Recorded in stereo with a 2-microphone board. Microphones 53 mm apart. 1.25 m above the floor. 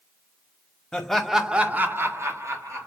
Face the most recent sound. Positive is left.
turn(degrees=-70)  # may be behind; listen again after turning